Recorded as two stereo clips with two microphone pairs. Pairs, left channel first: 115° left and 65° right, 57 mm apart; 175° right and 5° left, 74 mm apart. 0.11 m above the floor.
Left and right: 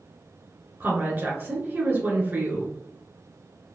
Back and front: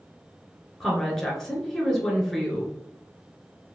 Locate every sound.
0.8 s a woman speaking: 95° right, 1.3 m